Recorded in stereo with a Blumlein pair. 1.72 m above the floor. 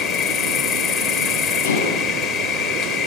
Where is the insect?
30° left, 1.3 m.